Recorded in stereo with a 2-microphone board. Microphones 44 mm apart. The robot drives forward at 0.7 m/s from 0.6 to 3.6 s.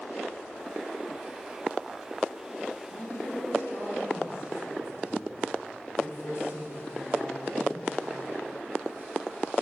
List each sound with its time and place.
2.9 s a woman speaking: 60° left (ahead or behind), 1.9 m; by 7.9 s 65° left (ahead or behind), 1.8 m